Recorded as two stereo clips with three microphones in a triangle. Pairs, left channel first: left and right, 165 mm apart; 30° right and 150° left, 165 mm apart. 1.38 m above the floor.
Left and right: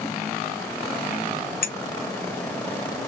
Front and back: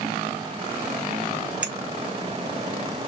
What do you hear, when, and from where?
1.6 s a clink: 65° left, 0.7 m